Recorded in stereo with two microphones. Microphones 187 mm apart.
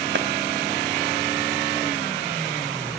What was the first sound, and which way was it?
A clap, 65° right (ahead or behind).